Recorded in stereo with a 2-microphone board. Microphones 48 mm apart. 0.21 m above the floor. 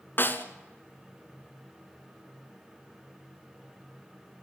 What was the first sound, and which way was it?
A snare drum, 45° left (ahead or behind).